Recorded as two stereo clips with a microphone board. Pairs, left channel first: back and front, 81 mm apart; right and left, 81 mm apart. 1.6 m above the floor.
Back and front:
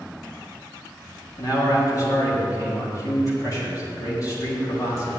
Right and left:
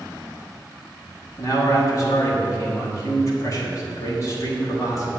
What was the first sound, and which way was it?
A man speaking, 135° right.